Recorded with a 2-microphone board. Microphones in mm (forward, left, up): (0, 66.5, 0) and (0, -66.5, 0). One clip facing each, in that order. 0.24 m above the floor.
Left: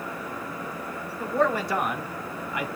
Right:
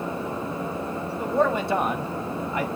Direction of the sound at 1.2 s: 15° right (ahead or behind).